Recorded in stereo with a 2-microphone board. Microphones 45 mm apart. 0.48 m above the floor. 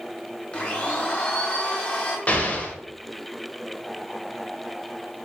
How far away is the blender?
About 0.7 m.